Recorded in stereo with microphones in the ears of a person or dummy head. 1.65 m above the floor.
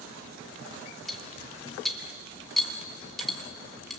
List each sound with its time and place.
1.1 s cutlery clinking: 5° right (ahead or behind), 2.5 m